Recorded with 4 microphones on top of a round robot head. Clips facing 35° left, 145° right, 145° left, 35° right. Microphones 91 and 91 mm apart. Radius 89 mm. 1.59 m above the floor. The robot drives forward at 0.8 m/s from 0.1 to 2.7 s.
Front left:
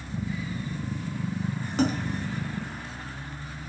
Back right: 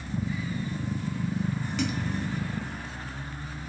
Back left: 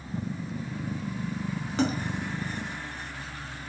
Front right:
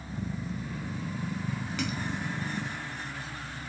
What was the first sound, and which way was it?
A splash, 85° left.